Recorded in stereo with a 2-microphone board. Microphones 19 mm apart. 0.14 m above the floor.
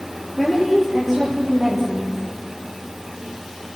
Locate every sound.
0.4 s a woman speaking: centre (ahead or behind), 4 m; by 2.2 s 15° right (ahead or behind), 4.5 m